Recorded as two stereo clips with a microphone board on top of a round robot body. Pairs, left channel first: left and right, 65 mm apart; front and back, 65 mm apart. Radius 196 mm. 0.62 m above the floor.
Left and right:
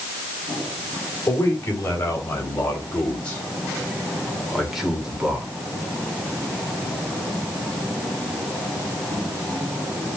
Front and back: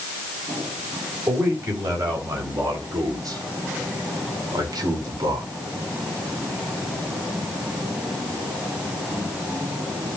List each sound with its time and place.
1.3 s a man speaking: 140° left, 5.5 m; by 5.5 s 165° right, 3.5 m